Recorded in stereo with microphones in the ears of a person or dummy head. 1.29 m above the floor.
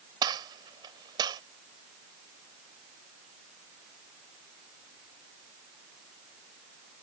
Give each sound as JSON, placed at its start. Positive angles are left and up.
{"t": 0.2, "sound": "a gunshot", "side_deg": -25}